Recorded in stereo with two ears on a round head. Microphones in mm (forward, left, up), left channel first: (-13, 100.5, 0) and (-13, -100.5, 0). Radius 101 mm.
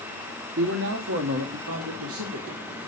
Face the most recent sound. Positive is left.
turn(degrees=-55)  # may be behind; listen again after turning